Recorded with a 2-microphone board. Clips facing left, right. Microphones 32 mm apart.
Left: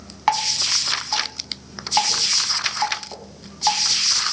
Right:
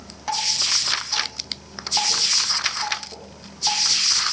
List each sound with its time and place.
0.3 s dripping: 65° left (ahead or behind), 2.5 m